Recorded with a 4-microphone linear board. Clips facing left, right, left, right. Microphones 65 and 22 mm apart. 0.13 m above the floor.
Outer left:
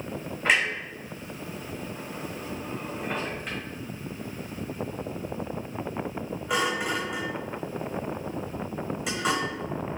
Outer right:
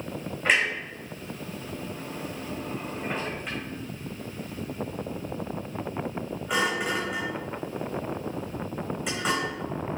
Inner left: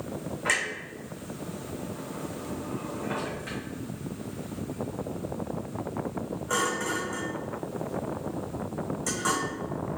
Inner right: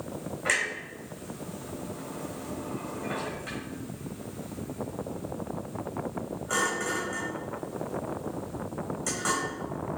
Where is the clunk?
Centre (ahead or behind), 1.4 m.